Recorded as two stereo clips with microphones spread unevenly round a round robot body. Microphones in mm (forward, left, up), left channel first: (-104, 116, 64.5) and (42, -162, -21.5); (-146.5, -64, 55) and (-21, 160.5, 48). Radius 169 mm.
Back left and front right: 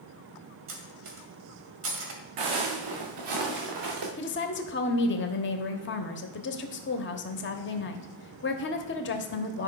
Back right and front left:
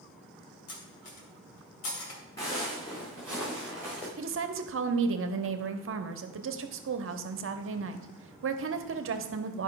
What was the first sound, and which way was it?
Cutlery clinking, 110° right.